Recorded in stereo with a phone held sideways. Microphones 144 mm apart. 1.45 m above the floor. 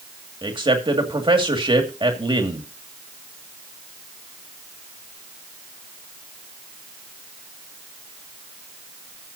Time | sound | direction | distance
0.4 | a man speaking | 35° right (ahead or behind) | 2.5 m